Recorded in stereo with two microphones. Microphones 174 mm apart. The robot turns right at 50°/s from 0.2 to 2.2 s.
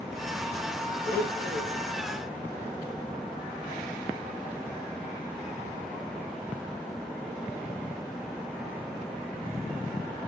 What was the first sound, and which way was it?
A blender, 70° left.